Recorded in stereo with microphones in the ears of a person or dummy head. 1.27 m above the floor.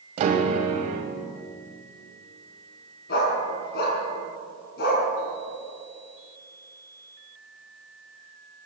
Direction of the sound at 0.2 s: 40° right (ahead or behind).